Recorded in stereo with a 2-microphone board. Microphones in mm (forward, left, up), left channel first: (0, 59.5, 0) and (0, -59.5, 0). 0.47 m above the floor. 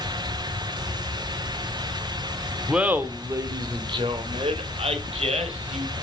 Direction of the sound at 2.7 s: 5° right (ahead or behind).